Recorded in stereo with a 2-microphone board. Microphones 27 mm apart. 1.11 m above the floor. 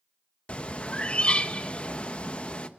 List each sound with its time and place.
0.5 s a bird: 50° left (ahead or behind), 1.2 m